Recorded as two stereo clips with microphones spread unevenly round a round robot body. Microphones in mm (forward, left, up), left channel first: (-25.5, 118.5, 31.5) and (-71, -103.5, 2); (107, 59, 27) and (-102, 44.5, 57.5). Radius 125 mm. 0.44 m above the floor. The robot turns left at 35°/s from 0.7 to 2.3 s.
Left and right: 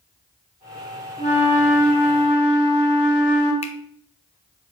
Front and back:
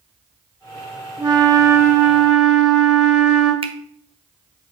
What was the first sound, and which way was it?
A flute, 125° left.